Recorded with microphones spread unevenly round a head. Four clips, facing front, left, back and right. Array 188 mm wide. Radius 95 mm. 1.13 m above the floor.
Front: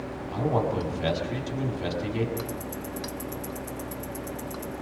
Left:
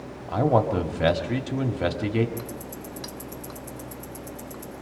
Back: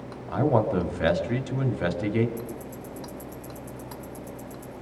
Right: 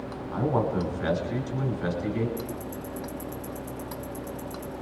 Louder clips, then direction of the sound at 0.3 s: Left 5 dB, back 4 dB; 120° left.